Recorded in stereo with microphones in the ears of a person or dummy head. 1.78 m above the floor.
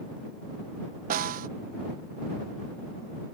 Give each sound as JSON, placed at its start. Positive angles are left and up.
{"t": 1.1, "sound": "a snare drum", "side_deg": -40}